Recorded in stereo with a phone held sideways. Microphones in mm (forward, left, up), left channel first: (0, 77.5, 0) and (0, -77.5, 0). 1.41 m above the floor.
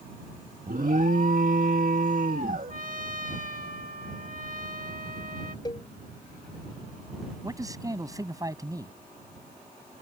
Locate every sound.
0.7 s an alarm: 60° right (ahead or behind)
2.7 s a trumpet: 60° right (ahead or behind)
5.7 s a cowbell: 30° left (ahead or behind)
7.4 s a man speaking: 20° right (ahead or behind)